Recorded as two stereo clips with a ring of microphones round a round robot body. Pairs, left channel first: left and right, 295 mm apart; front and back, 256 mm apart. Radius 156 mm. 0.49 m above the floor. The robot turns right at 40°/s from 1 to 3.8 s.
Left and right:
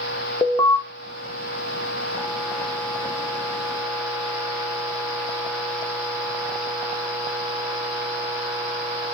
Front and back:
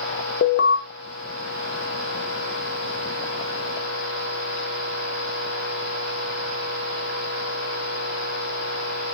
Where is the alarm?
20° left, 0.6 m.